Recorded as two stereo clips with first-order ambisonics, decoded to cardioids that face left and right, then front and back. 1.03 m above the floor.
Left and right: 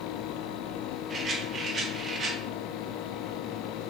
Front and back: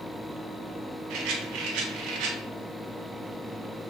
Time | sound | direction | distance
1.1 | a rattle | 155° right | 0.8 m